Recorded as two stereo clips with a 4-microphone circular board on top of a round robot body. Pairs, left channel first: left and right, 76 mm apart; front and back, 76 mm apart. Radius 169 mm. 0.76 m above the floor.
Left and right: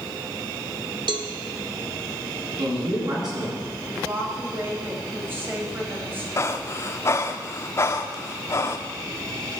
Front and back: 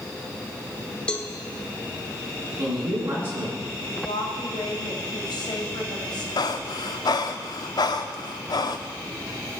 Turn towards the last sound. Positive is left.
turn(degrees=35)